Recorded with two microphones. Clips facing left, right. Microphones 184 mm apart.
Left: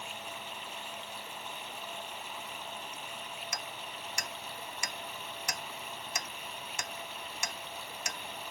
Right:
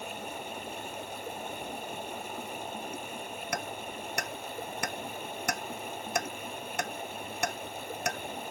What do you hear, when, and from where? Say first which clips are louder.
0.0 s running water: right 6 dB; 50° right (ahead or behind)
3.5 s hammering: right 7 dB; 60° right (ahead or behind)